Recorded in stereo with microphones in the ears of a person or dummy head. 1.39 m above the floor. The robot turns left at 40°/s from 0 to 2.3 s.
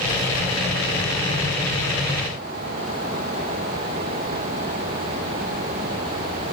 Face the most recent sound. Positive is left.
No sound to turn to.